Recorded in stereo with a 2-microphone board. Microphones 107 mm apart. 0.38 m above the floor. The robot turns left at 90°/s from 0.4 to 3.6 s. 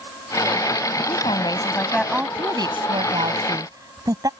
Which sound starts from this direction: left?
A woman speaking, at 1.1 s.